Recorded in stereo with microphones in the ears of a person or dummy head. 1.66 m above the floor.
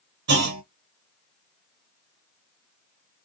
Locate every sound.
0.3 s a clunk: 60° right (ahead or behind), 0.9 m